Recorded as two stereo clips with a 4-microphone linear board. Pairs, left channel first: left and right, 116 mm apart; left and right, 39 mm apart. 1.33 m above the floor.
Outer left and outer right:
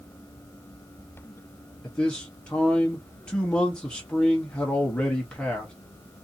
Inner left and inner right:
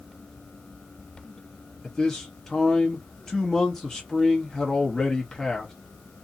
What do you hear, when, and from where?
1.8 s a man speaking: 10° left (ahead or behind), 0.8 m